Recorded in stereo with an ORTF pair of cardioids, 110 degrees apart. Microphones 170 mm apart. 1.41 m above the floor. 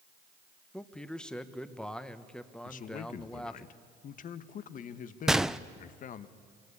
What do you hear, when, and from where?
0.7 s a man speaking: 5° left, 1.4 m
2.6 s a man speaking: 50° left, 1.3 m
5.3 s a gunshot: 5° right, 0.6 m